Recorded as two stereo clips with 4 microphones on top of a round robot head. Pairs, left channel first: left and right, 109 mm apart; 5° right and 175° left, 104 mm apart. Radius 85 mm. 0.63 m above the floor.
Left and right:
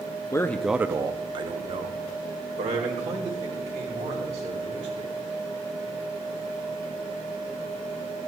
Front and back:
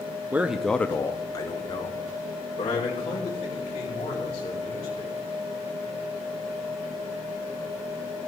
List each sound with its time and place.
0.3 s a man speaking: 120° left, 0.7 m; by 5.1 s 55° right, 5 m